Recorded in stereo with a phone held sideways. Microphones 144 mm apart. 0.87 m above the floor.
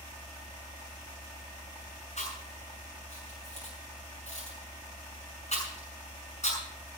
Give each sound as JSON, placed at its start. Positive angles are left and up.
{"t": 2.2, "sound": "chewing", "side_deg": 55, "distance_m": 7.0}